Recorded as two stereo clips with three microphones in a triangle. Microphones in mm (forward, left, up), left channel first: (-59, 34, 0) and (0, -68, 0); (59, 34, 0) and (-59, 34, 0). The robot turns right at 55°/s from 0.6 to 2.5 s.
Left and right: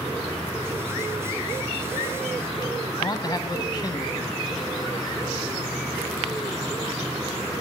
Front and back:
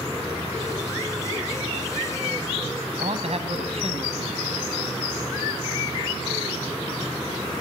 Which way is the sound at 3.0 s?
170° left.